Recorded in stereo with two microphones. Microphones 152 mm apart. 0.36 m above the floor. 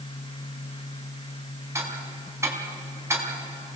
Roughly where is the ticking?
Centre.